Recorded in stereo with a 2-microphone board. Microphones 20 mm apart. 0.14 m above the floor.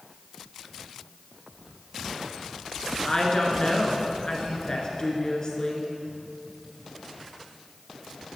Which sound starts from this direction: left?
A woman speaking, at 3.0 s.